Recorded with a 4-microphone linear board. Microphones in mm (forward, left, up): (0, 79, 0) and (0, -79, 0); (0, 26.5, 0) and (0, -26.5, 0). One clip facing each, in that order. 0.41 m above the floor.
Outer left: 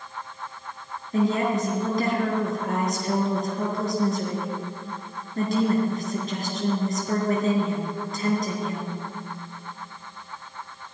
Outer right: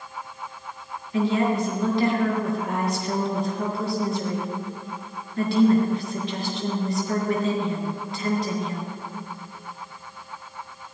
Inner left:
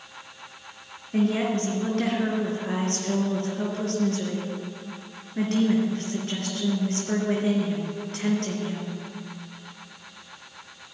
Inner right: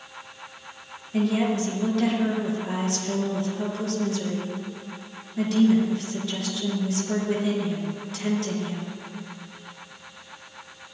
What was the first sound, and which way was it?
A woman speaking, 45° left (ahead or behind).